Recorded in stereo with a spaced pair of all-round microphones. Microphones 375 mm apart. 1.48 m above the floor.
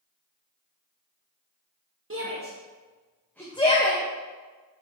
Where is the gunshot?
No gunshot in this recording.